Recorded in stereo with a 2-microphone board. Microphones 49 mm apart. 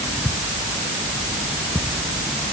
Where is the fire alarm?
I don't hear a fire alarm.